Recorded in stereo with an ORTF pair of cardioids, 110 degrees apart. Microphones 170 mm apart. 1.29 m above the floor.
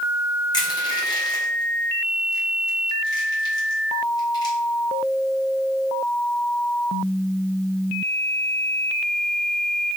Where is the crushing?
25° left, 1.3 m.